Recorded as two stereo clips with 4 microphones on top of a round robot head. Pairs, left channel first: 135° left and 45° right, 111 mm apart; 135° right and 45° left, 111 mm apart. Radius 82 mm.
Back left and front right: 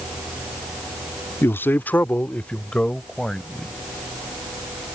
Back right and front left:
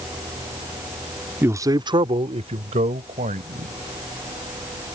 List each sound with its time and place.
1.4 s a man speaking: 90° left; by 3.7 s 50° left